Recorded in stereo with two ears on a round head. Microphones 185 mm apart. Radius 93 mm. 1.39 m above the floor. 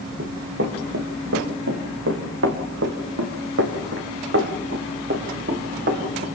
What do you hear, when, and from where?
0.2 s running footsteps: 55° right (ahead or behind), 4 m; by 6.3 s 40° right (ahead or behind), 5 m